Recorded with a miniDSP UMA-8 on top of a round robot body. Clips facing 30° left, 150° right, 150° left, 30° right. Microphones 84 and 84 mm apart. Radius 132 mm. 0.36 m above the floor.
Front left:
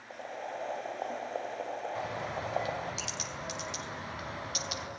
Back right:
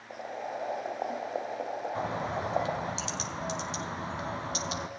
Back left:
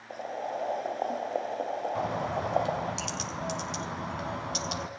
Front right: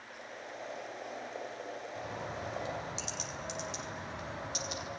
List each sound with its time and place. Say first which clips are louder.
0.1 s boiling: back right 3 dB, back left 13 dB; 130° left, 2.5 m
1.9 s a bird: back right 4 dB, back left 8 dB; 155° left, 4.5 m